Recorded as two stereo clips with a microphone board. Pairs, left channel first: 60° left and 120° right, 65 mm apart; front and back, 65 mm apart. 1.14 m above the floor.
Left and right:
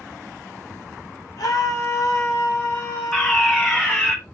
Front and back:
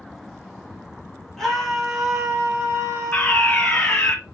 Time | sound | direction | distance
1.4 | a scream | 85° left | 1.6 m
3.1 | a fire alarm | straight ahead | 1.3 m